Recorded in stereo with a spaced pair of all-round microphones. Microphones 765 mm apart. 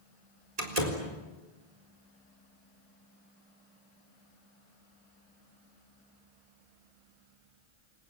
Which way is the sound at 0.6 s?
55° right (ahead or behind).